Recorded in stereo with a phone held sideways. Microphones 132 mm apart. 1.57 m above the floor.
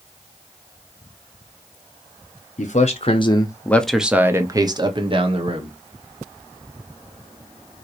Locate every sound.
2.6 s a man speaking: 65° left (ahead or behind), 1.0 m; by 5.7 s 50° right (ahead or behind), 1.6 m